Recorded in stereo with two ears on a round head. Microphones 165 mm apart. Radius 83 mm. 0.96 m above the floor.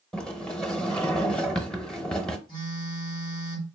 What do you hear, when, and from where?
0.1 s a sliding door: 5° left (ahead or behind), 0.6 m
2.5 s a phone buzzing: 25° left (ahead or behind), 3 m